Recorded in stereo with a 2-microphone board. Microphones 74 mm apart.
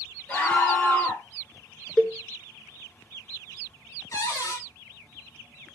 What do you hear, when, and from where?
0.3 s a scream: 20° left (ahead or behind), 3 m
2.0 s a cowbell: 5° left (ahead or behind), 0.6 m
4.1 s a cupboard door: 45° left (ahead or behind), 1.4 m